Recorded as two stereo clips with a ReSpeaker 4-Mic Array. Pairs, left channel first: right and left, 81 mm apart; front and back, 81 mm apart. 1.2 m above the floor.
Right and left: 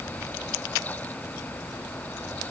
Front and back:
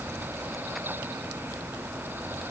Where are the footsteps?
I don't hear footsteps.